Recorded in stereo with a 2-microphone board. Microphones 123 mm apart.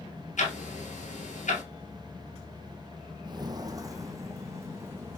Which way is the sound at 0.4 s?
85° left.